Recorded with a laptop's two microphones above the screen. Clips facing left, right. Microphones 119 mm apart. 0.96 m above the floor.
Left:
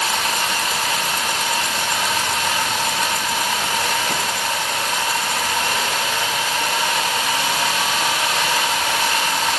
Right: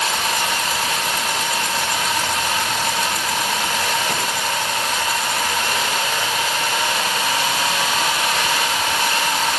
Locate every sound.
Only background noise.